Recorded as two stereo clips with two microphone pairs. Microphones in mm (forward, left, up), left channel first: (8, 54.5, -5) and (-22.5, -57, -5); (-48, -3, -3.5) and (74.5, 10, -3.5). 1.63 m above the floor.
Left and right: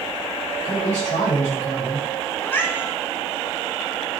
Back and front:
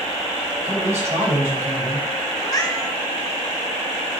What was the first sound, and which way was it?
A man speaking, 70° left.